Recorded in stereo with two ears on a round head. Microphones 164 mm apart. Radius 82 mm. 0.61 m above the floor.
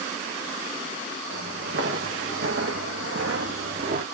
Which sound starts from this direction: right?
Footsteps, at 1.3 s.